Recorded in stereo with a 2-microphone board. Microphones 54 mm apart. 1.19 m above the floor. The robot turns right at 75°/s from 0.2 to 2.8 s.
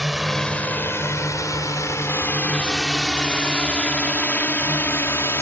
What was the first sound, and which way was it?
A drone, 5° right (ahead or behind).